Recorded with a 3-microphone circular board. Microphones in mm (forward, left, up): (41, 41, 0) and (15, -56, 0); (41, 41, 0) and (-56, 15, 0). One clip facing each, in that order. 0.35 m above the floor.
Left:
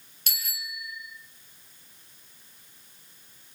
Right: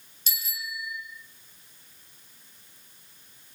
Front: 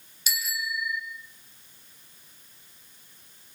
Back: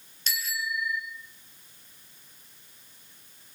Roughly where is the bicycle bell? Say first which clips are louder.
Right 2 dB, even; left.